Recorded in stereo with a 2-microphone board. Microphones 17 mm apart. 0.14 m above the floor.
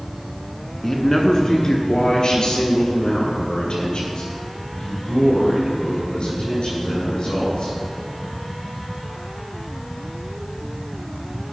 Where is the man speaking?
20° left (ahead or behind), 1.3 m; by 7.8 s 70° left (ahead or behind), 6.5 m.